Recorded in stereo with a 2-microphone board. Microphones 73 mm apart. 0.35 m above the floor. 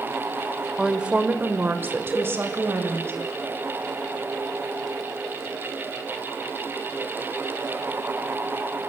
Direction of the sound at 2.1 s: 10° right (ahead or behind).